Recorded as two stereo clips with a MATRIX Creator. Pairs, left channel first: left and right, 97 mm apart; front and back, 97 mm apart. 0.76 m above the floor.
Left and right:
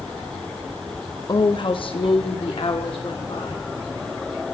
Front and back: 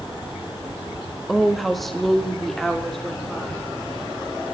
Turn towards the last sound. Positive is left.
turn(degrees=85)